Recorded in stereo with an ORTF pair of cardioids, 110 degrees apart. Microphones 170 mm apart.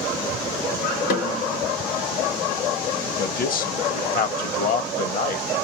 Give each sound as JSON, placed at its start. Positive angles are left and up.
{"t": 1.1, "sound": "a snare drum", "azimuth_deg": 70, "distance_m": 3.5}
{"t": 3.2, "sound": "a man speaking", "azimuth_deg": 60, "distance_m": 1.3}